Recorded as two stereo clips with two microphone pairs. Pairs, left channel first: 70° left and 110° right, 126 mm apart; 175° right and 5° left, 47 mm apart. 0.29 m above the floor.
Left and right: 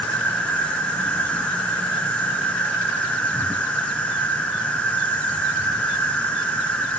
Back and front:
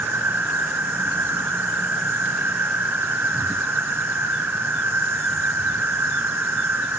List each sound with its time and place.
0.0 s an insect: 5° right, 1.5 m